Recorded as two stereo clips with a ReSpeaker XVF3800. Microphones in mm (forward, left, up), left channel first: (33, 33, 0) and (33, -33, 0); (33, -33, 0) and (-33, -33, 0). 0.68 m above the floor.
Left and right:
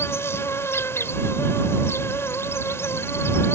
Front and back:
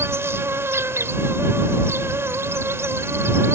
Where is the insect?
135° left.